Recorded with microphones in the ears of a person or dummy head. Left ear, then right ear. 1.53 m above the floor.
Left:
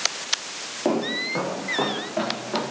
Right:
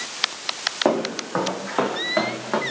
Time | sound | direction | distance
0.8 | footsteps | 45° right (ahead or behind) | 4.5 m